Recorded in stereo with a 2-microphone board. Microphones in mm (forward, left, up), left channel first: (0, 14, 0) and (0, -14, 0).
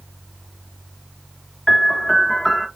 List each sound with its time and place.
1.7 s a piano: 10° left (ahead or behind), 1.3 m